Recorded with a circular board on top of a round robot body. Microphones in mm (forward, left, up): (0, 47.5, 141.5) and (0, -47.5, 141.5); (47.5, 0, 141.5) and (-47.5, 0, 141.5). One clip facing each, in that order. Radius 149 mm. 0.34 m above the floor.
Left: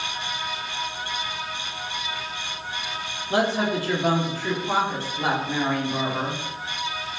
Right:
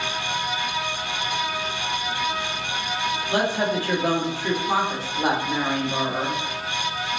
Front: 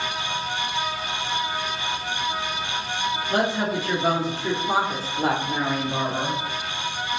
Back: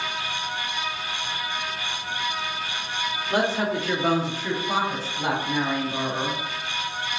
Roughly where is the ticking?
No ticking in this recording.